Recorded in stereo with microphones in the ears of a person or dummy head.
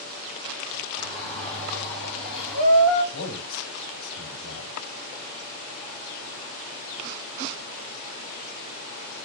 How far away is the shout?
About 5 m.